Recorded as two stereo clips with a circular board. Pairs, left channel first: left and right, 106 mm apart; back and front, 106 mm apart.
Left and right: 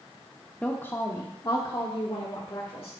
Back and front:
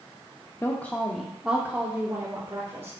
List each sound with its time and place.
0.6 s a woman speaking: 150° left, 0.7 m; by 2.9 s 55° left, 1.4 m